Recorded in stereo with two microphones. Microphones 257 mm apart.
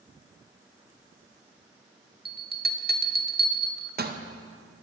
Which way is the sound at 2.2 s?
40° right (ahead or behind).